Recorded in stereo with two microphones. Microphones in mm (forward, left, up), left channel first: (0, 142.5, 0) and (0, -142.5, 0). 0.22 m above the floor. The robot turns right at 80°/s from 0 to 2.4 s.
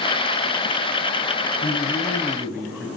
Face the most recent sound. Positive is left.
turn(degrees=-170)